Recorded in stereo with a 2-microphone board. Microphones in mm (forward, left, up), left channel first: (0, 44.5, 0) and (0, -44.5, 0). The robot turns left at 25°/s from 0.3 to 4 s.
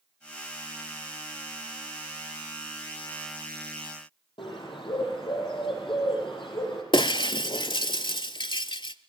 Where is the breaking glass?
60° left (ahead or behind), 0.6 m.